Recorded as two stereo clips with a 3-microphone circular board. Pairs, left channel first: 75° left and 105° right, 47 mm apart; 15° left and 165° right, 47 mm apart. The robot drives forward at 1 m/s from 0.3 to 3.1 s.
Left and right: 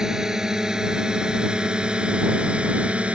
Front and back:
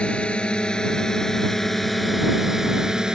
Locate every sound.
0.0 s a drone: 35° right; by 3.1 s 110° right